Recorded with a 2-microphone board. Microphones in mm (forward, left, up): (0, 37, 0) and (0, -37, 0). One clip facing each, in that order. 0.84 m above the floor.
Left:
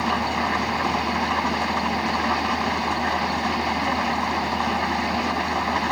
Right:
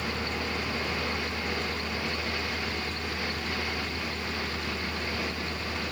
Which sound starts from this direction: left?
An engine running, at 0.0 s.